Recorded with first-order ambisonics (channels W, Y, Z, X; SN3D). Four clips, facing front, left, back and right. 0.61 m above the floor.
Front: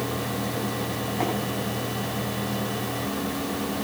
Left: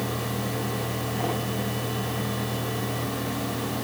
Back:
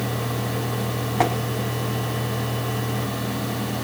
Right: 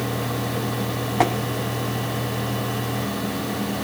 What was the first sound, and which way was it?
Tapping, 120° right.